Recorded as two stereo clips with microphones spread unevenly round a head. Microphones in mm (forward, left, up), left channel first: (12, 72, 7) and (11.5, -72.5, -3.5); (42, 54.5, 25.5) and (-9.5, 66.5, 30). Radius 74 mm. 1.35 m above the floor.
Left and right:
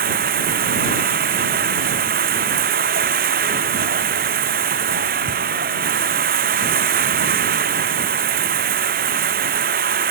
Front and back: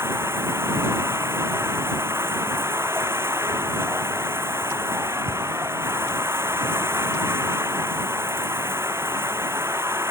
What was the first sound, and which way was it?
Running water, 125° right.